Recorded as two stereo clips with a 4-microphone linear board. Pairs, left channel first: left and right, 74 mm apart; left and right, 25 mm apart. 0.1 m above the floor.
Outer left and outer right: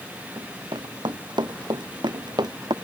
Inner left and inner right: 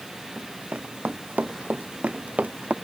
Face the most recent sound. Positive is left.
turn(degrees=-75)  # may be behind; listen again after turning